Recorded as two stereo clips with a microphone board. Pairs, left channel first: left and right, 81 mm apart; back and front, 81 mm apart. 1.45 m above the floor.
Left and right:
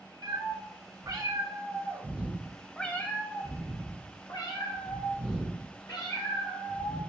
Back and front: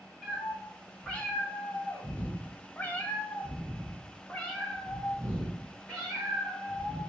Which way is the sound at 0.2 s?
105° right.